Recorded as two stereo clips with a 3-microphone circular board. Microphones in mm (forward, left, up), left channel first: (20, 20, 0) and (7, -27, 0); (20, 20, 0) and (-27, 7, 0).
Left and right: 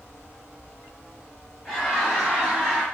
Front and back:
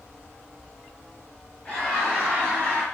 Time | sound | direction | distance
1.6 | laughter | 35° right | 1.4 m